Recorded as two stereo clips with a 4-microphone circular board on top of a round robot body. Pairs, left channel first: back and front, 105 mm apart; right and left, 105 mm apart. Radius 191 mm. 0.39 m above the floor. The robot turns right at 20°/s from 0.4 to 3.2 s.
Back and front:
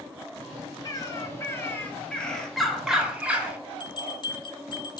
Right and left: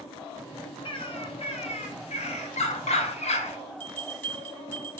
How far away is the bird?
About 0.8 m.